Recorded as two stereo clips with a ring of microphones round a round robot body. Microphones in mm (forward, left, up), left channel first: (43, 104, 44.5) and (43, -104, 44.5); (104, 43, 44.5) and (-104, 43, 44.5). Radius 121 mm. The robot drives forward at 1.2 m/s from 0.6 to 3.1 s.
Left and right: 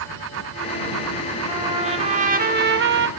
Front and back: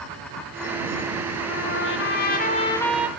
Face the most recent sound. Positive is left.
turn(degrees=-100)